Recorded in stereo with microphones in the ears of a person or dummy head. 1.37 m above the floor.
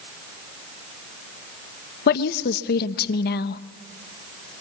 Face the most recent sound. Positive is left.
turn(degrees=55)  # may be behind; listen again after turning